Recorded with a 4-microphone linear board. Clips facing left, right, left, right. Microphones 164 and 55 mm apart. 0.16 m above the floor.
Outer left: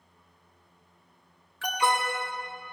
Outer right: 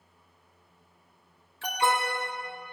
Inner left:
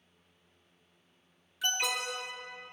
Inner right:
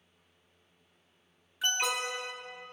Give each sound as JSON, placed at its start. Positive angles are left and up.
{"t": 1.6, "sound": "an alarm", "side_deg": -25, "distance_m": 1.8}